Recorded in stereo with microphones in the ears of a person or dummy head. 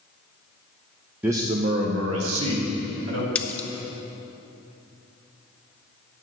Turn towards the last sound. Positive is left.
turn(degrees=5)  # may be behind; listen again after turning